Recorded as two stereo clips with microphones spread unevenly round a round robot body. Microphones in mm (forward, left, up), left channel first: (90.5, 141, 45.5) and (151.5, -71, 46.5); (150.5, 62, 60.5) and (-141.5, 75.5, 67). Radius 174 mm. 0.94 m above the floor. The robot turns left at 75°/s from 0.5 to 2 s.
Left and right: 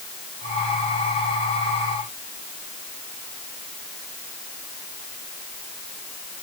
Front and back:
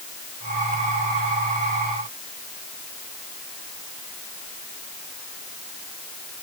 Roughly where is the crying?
No crying in this recording.